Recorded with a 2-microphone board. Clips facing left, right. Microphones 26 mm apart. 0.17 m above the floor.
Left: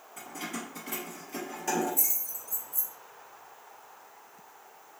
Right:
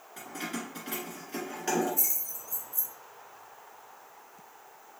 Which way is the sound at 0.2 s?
60° right (ahead or behind).